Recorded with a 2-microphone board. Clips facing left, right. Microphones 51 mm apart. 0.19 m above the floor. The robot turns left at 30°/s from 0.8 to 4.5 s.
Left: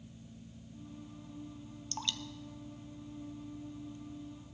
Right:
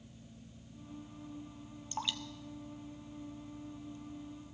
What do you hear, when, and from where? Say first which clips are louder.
1.9 s dripping: right 1 dB; 15° right (ahead or behind), 0.7 m; by 4.0 s 45° left (ahead or behind), 0.7 m